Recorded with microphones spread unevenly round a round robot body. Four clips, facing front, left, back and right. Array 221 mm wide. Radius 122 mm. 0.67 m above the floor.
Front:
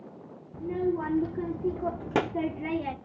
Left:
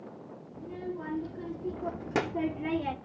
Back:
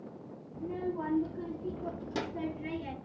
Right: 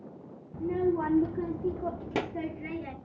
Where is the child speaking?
50° right, 1.3 m; by 3.0 s 45° left, 1.3 m.